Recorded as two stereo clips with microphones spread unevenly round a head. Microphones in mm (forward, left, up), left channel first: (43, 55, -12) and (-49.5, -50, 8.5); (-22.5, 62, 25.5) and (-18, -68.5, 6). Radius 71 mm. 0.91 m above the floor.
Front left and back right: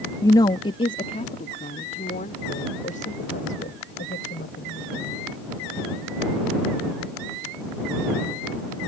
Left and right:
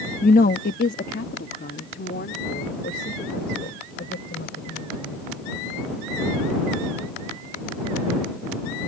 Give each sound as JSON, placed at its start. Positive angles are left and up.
{"t": 0.2, "sound": "a woman speaking", "azimuth_deg": 110}